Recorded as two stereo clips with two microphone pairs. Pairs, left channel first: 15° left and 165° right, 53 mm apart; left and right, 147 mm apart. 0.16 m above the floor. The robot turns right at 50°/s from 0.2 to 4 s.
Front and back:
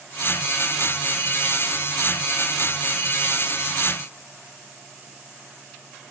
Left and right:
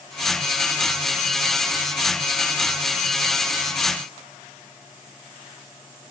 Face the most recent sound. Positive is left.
No sound to turn to.